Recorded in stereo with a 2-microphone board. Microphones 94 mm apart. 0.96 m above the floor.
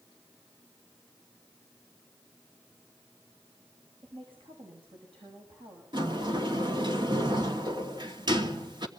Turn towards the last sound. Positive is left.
turn(degrees=-55)  # may be behind; listen again after turning